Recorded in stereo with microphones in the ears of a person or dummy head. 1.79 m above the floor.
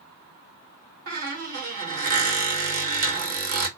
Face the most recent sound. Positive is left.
turn(degrees=-45)  # may be behind; listen again after turning